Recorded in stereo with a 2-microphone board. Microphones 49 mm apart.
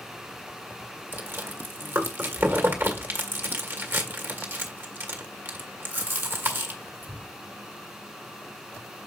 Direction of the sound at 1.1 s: 40° right (ahead or behind).